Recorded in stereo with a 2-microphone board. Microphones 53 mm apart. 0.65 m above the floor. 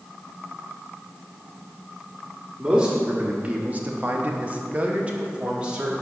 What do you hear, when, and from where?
2.6 s a man speaking: 15° right (ahead or behind), 1.2 m; by 5.9 s 20° right (ahead or behind), 1.6 m